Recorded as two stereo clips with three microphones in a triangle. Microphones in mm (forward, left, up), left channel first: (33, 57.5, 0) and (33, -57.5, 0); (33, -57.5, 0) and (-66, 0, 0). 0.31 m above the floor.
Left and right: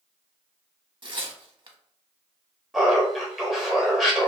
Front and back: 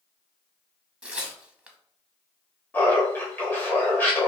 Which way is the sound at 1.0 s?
130° right.